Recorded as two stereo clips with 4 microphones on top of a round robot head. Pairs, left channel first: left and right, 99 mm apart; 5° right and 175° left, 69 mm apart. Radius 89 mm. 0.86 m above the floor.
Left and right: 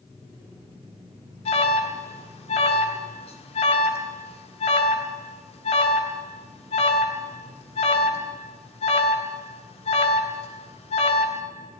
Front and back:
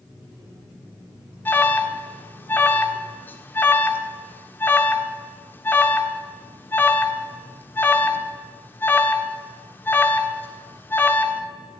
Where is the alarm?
60° left, 1.5 m.